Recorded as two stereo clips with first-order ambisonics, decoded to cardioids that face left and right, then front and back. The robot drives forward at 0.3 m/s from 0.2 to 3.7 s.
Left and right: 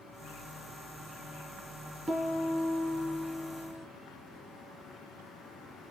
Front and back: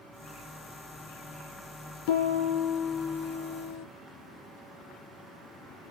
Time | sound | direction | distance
2.1 | a piano | 5° right | 1.9 m